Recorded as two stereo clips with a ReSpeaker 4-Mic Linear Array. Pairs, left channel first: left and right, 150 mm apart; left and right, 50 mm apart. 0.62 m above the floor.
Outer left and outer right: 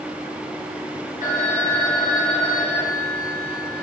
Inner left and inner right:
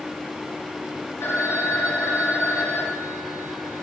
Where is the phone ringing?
80° left, 2.5 m.